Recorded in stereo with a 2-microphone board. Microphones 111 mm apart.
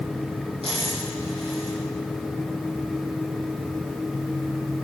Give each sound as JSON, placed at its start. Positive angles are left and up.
{"t": 0.6, "sound": "a dropped coin", "side_deg": -60, "distance_m": 6.5}